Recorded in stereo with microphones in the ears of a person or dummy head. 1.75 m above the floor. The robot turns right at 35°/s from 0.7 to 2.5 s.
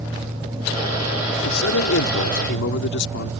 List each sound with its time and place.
1.4 s a man speaking: 80° left; by 3.3 s 115° left